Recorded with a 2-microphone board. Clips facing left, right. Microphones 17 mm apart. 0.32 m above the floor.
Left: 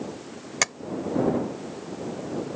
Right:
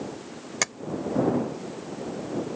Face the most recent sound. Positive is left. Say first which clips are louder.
# left 3 dB
turn(degrees=10)  # may be behind; listen again after turning